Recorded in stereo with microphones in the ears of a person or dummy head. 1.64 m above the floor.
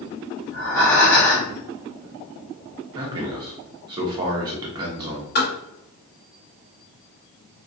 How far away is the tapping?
About 1.3 m.